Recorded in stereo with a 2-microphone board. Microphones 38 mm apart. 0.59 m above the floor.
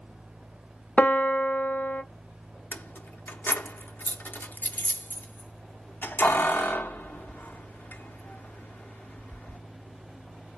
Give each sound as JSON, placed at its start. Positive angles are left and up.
{"t": 1.0, "sound": "a piano", "side_deg": 60, "distance_m": 0.5}
{"t": 2.7, "sound": "keys jangling", "side_deg": 65, "distance_m": 0.6}